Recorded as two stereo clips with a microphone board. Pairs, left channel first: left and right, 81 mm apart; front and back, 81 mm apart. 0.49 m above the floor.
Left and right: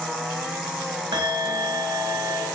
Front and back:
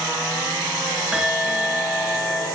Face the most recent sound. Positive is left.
turn(degrees=-100)